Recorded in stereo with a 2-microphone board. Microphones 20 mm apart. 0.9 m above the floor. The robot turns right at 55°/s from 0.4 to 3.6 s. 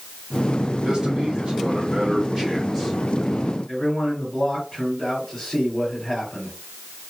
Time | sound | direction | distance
0.8 | a man speaking | 115° right | 1.4 m
3.7 | a man speaking | 20° left (ahead or behind) | 2.5 m